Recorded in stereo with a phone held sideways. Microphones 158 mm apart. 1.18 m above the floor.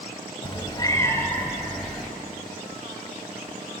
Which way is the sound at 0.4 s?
35° left (ahead or behind).